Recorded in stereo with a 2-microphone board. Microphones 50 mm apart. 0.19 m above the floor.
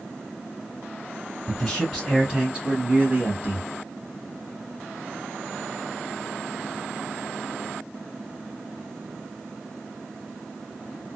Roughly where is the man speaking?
Centre.